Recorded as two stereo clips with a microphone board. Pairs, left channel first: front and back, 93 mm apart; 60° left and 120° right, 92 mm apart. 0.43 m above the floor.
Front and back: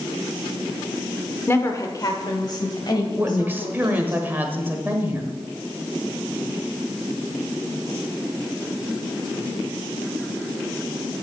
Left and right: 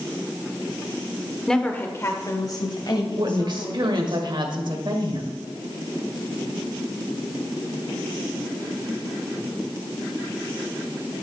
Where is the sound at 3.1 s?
115° right, 1.4 m.